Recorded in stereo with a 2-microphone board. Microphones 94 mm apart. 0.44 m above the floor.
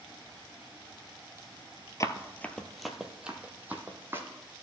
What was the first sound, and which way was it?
Running footsteps, 35° left (ahead or behind).